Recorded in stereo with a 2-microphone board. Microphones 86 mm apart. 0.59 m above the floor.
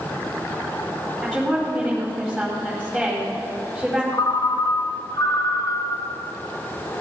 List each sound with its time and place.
1.2 s a woman speaking: 10° right (ahead or behind), 4.5 m
4.1 s a ringtone: 55° left (ahead or behind), 1.1 m